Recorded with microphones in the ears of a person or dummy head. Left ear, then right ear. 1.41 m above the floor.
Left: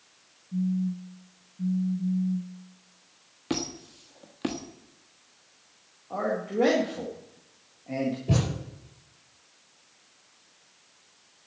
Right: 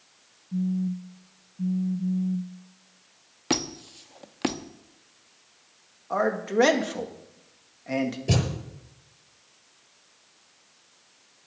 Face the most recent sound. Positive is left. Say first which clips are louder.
# right 4 dB
turn(degrees=-60)  # may be behind; listen again after turning